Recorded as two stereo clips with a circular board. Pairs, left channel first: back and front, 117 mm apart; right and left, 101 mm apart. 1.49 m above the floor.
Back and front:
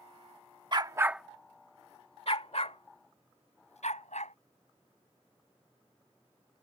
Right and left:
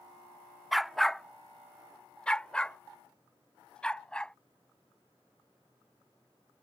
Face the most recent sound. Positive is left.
turn(degrees=-170)